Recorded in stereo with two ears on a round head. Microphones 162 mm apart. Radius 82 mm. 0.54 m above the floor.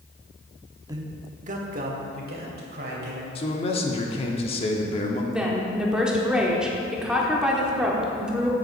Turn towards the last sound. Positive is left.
turn(degrees=-5)  # may be behind; listen again after turning